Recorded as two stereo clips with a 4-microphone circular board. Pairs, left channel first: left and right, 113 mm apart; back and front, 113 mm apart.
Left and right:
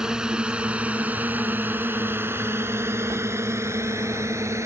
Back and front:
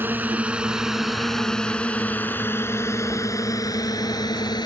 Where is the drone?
20° right; by 4.7 s 145° right.